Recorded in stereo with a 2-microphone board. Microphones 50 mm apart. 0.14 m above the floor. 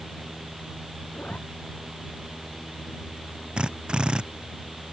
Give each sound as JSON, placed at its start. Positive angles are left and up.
{"t": 1.1, "sound": "a zipper", "side_deg": 30}
{"t": 3.6, "sound": "a drill", "side_deg": -15}